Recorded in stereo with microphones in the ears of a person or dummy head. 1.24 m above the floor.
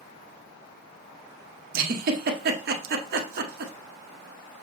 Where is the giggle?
45° right (ahead or behind), 0.7 m.